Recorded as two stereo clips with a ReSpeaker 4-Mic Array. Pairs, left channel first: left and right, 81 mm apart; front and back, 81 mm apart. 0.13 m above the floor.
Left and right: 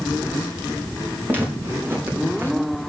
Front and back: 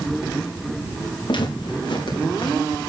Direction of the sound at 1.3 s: 25° right.